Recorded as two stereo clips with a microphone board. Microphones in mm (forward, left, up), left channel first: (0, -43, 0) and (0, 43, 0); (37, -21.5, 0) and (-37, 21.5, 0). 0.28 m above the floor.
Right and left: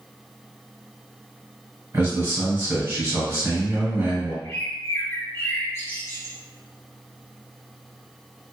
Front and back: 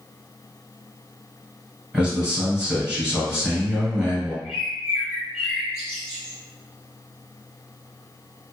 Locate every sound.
1.9 s a man speaking: 80° left, 1.5 m
4.4 s a bird: 135° right, 1.8 m